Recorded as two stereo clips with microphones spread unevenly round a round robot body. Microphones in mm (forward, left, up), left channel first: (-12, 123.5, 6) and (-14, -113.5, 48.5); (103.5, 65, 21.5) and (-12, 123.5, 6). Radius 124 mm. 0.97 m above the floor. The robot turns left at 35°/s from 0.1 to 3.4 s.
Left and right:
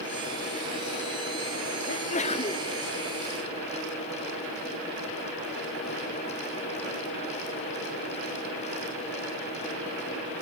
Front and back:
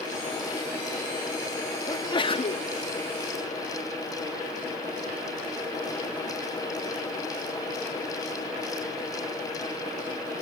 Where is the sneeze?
40° left, 1.5 m; by 2.7 s 10° left, 1.5 m.